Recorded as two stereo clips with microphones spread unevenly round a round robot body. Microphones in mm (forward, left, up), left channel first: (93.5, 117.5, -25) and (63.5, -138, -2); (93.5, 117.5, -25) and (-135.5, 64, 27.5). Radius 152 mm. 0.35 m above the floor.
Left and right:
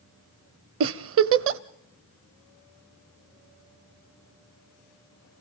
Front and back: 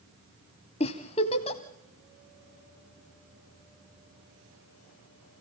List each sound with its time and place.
0.8 s a giggle: 55° right, 0.6 m